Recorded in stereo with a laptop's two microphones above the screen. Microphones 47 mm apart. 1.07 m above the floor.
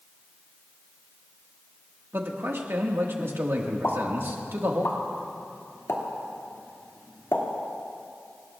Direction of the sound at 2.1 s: 60° right (ahead or behind).